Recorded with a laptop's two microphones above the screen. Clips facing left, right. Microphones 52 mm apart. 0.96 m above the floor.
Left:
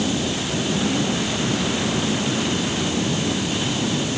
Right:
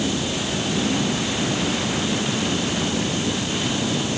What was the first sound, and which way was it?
Only background noise.